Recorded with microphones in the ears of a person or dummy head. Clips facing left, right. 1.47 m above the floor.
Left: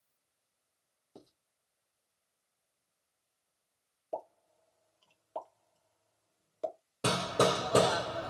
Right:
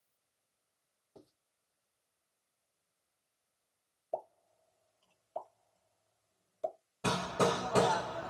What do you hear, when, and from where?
1.1 s writing: 45° left (ahead or behind), 2.5 m
4.1 s a pop: 60° left (ahead or behind), 2 m
7.0 s hammering: 55° left (ahead or behind), 2.5 m